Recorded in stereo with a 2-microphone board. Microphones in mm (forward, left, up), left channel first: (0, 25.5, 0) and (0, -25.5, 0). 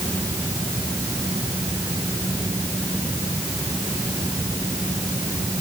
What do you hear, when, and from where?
Only background noise.